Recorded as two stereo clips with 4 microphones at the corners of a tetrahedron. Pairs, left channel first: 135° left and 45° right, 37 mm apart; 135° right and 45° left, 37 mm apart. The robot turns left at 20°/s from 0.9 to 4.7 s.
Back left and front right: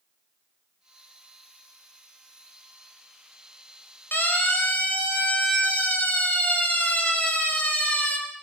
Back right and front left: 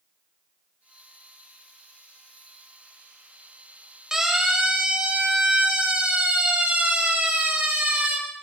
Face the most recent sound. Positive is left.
turn(degrees=90)